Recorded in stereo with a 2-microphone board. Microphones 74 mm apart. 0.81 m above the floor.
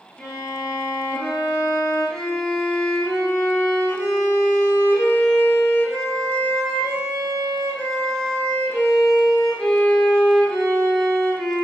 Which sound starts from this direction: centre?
A violin, at 0.2 s.